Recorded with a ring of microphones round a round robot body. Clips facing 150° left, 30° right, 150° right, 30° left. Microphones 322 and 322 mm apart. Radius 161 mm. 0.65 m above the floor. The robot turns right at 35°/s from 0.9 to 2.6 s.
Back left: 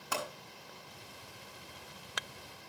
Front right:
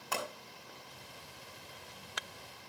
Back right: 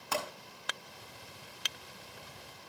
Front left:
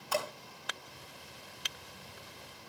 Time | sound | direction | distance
0.1 | a pop | 125° right | 7.5 m